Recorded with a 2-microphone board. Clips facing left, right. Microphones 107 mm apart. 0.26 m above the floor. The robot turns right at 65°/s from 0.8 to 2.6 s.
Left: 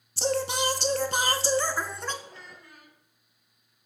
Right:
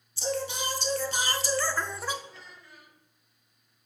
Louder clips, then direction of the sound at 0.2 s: Left 4 dB; 105° left.